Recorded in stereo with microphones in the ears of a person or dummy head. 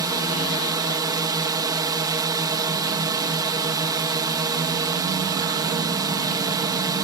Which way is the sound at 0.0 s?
20° right (ahead or behind).